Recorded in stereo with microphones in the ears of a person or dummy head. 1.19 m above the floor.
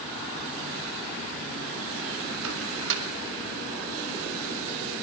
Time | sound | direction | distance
2.4 | a microwave | 70° right (ahead or behind) | 3 m